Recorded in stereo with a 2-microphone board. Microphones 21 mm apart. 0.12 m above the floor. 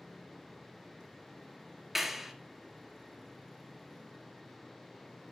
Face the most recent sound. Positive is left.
turn(degrees=-10)  # may be behind; listen again after turning